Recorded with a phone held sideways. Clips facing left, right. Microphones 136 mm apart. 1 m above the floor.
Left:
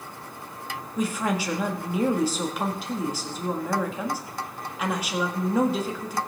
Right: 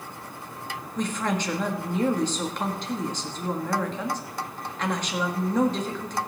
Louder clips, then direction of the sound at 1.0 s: Left 1 dB; 5° left (ahead or behind).